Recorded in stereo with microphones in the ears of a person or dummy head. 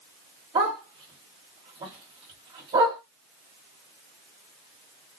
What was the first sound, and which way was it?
A dog barking, 25° right (ahead or behind).